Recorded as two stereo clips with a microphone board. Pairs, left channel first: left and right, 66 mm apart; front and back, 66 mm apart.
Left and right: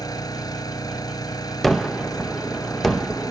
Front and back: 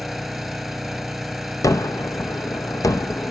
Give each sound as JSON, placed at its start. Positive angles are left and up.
{"t": 0.0, "sound": "an engine running", "azimuth_deg": 90, "distance_m": 2.5}
{"t": 1.6, "sound": "a gunshot", "azimuth_deg": 0, "distance_m": 0.6}